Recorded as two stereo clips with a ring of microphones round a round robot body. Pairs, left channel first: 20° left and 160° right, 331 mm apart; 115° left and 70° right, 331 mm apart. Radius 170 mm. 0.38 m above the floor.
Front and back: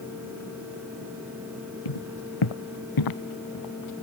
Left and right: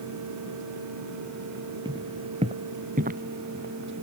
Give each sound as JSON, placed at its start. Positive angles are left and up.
{"t": 1.9, "sound": "footsteps", "azimuth_deg": 10}